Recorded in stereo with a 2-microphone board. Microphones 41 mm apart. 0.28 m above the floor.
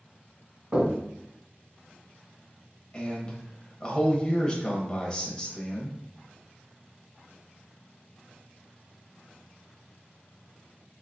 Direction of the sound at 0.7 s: 30° right (ahead or behind).